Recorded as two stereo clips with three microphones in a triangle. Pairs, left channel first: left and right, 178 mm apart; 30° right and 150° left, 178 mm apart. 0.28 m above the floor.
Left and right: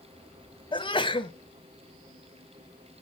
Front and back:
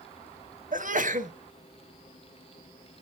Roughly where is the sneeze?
Behind left.